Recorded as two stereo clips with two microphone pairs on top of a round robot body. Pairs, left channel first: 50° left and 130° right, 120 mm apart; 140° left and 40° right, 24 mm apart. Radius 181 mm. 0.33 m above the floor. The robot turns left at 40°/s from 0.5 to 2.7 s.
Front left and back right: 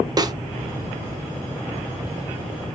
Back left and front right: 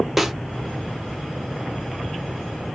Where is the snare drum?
135° right, 0.6 m.